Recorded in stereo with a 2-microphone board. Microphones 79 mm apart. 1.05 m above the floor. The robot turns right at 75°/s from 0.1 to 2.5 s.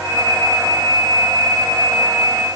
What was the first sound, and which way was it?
Only background noise.